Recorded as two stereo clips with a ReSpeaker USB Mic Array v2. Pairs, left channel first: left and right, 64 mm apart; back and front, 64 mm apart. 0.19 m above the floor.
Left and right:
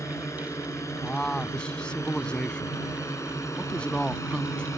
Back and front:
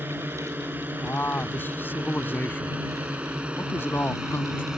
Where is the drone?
55° left; by 4.8 s 75° left.